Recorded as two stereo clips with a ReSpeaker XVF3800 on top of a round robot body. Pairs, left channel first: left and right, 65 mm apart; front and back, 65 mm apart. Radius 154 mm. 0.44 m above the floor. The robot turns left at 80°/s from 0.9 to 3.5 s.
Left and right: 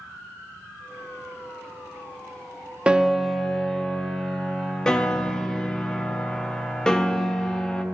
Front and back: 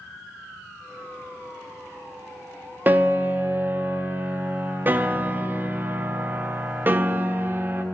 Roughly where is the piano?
Behind right.